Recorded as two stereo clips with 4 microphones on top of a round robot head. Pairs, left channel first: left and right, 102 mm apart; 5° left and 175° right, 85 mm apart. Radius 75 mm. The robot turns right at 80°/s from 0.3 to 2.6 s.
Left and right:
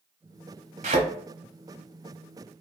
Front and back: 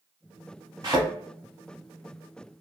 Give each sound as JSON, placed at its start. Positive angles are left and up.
{"t": 0.8, "sound": "a thud", "azimuth_deg": -110, "distance_m": 1.0}